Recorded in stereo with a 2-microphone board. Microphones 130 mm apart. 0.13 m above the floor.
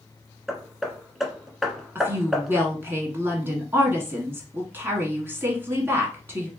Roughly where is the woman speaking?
Centre.